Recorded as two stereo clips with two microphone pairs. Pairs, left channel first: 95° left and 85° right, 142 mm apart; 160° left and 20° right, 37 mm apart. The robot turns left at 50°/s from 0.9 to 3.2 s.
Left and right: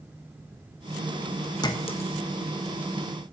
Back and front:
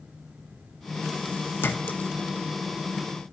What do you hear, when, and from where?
1.6 s a clink: 155° left, 1.1 m; by 2.1 s 130° left, 1.1 m